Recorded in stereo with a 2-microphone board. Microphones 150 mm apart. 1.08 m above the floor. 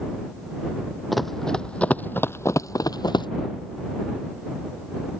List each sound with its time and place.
1.1 s running footsteps: centre (ahead or behind); by 3.3 s 30° left (ahead or behind)